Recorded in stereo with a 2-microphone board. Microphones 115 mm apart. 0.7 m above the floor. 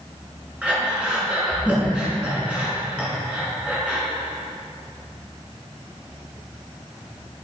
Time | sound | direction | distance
0.6 | breathing | 10° right (ahead or behind) | 6 m